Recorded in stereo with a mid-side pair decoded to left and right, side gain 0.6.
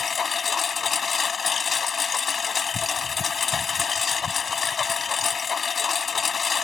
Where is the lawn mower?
30° left.